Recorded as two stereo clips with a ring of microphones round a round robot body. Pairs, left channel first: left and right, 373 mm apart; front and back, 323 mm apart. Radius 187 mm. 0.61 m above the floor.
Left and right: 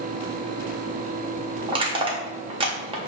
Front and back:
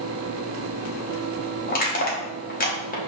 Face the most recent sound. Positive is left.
turn(degrees=-25)